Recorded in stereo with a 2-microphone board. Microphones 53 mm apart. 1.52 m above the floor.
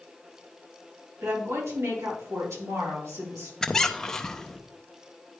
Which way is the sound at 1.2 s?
85° right.